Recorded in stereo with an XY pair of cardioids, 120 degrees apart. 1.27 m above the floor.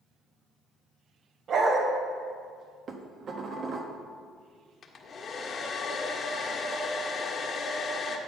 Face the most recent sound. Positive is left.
turn(degrees=45)